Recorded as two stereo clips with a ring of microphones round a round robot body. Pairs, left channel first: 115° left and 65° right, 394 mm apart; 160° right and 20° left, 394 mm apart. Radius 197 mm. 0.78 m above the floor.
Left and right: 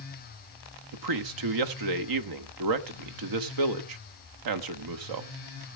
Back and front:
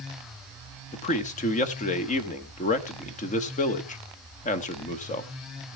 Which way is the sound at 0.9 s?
90° right.